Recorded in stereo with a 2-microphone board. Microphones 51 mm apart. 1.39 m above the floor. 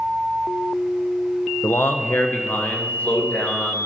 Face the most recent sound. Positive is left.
turn(degrees=30)  # may be behind; listen again after turning